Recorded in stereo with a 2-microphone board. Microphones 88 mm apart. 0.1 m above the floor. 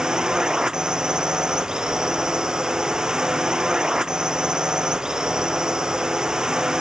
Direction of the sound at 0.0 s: 10° right (ahead or behind).